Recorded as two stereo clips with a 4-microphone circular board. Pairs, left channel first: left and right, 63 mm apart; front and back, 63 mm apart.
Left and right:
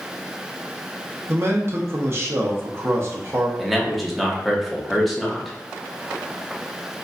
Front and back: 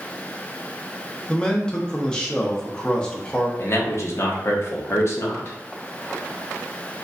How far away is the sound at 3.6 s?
About 0.9 m.